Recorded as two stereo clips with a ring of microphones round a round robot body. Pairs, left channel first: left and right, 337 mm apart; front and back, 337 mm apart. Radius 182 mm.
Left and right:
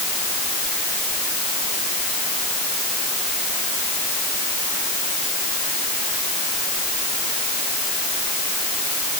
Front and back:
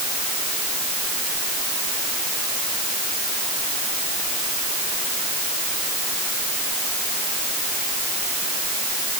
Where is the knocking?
I don't hear knocking.